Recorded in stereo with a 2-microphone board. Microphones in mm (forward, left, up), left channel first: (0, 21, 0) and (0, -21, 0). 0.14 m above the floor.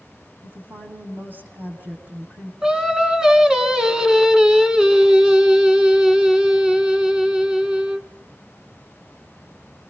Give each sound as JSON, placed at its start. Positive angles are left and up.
{"t": 0.4, "sound": "a woman speaking", "side_deg": -55, "distance_m": 7.5}
{"t": 2.6, "sound": "singing", "side_deg": -20, "distance_m": 1.7}